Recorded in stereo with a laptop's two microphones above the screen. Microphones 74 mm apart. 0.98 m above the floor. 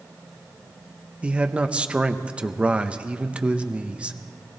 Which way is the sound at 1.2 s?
15° right (ahead or behind).